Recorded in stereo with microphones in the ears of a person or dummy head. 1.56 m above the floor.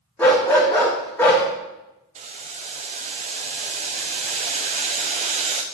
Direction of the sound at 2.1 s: 35° right (ahead or behind).